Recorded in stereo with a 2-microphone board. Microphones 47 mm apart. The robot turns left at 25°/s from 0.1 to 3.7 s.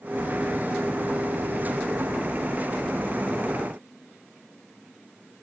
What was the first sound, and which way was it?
Only background noise.